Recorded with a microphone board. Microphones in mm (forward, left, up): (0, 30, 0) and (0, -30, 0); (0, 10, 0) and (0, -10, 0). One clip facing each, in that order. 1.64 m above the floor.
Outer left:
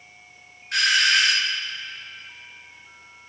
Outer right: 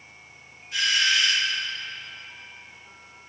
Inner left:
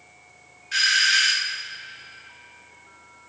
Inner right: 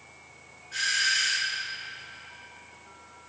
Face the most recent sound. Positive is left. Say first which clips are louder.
# outer left 4 dB, inner left 7 dB
turn(degrees=70)  # may be behind; listen again after turning